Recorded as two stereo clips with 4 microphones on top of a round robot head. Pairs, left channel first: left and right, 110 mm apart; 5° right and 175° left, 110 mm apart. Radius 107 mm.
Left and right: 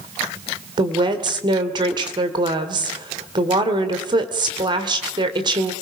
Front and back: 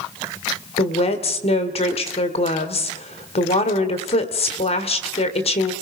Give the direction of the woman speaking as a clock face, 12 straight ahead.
1 o'clock.